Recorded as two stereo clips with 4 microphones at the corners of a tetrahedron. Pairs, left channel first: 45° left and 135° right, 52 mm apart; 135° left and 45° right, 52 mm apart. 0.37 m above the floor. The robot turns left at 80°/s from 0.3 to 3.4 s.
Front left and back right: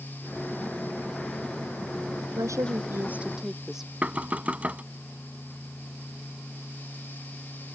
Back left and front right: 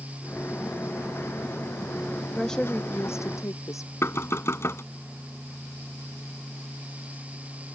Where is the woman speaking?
135° right; by 3.9 s 145° left.